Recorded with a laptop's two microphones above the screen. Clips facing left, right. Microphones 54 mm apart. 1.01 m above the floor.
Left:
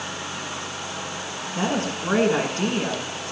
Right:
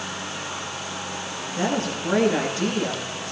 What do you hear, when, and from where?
1.6 s a woman speaking: 40° left (ahead or behind), 9.5 m